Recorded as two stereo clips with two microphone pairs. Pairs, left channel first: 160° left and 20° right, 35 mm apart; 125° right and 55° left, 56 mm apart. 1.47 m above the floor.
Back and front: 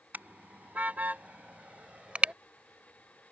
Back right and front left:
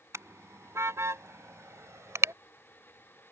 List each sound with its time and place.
0.1 s a car horn: 15° left; by 2.4 s 30° left